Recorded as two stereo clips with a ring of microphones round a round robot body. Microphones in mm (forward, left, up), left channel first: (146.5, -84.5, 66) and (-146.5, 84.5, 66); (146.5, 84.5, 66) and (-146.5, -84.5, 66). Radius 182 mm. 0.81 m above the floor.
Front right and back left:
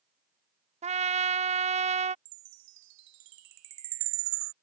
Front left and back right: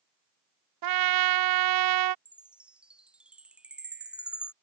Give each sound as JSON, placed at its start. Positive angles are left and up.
{"t": 0.8, "sound": "a trumpet", "azimuth_deg": -140}
{"t": 2.2, "sound": "a chime", "azimuth_deg": 125}